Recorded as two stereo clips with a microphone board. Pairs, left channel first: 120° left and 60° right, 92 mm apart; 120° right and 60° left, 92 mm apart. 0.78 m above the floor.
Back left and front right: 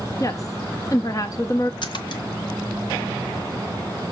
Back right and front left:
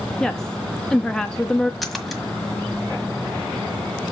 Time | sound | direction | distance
0.2 | a woman speaking | 160° left | 0.7 m
1.8 | a splash | 150° left | 1.4 m